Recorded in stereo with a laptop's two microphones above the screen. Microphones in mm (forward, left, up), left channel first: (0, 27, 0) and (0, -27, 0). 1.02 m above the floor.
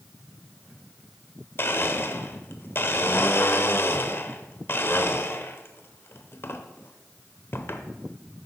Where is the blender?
45° left (ahead or behind), 0.9 m.